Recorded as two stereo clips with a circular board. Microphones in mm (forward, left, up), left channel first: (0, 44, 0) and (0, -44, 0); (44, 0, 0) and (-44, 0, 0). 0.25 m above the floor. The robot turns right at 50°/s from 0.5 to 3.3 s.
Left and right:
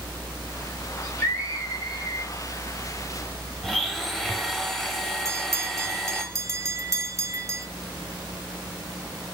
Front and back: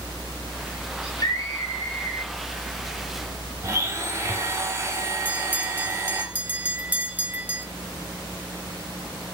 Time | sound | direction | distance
1.0 | a scream | 15° left | 3.5 m
3.6 | a blender | 170° left | 1.3 m
5.2 | a bell | 120° right | 0.8 m